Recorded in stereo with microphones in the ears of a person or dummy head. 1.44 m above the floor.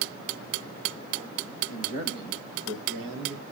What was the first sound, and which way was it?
A man speaking, 55° right (ahead or behind).